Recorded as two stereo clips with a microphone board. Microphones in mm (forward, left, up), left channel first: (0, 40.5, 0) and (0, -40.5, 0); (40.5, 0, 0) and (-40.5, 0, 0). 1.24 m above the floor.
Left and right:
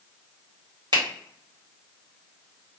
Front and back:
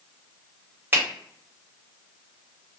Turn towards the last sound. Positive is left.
turn(degrees=-115)